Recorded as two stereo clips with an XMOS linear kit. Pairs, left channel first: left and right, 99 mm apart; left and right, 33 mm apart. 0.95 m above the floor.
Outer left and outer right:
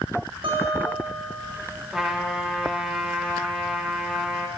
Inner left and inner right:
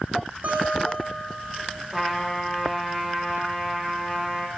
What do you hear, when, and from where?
0.4 s a guitar: 65° right (ahead or behind), 4 m
1.9 s a trumpet: 5° right (ahead or behind), 1.7 m